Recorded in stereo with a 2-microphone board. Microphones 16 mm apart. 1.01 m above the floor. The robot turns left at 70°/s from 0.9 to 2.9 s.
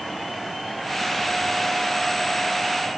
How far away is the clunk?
No clunk in this recording.